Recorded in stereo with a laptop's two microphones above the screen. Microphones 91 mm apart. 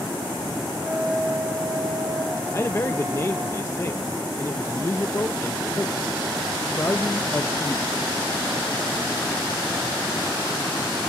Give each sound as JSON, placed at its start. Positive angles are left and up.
{"t": 0.8, "sound": "a flute", "side_deg": -25, "distance_m": 4.0}
{"t": 2.5, "sound": "a man speaking", "side_deg": 30, "distance_m": 0.6}